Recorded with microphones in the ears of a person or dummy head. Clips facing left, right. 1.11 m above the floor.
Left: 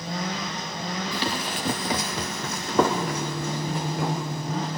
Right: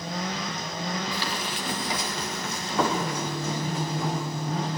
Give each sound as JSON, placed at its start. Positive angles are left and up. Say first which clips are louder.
{"t": 1.1, "sound": "running footsteps", "louder": "left 3 dB", "side_deg": 15, "distance_m": 1.2}